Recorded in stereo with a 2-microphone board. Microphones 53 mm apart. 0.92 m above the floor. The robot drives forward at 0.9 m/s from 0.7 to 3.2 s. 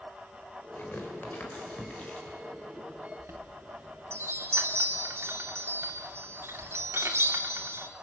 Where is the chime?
60° right (ahead or behind), 2.5 m.